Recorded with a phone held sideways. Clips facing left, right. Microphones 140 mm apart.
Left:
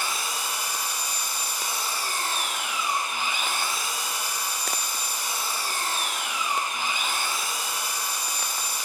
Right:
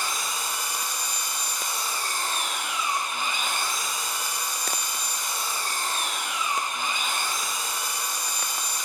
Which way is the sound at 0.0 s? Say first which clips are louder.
Even; 5° left (ahead or behind).